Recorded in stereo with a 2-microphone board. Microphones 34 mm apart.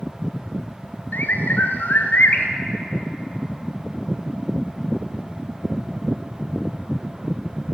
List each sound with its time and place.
1.1 s a bird: 75° left (ahead or behind), 1.1 m